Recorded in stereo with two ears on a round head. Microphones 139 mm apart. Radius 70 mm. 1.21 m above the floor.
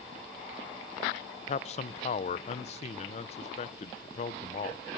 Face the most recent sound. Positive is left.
turn(degrees=45)  # may be behind; listen again after turning